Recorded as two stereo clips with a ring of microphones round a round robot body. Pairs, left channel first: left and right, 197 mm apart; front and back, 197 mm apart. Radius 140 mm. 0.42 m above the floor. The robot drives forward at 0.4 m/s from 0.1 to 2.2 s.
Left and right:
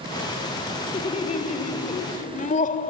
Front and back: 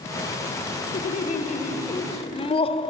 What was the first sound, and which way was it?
Laughter, 40° left.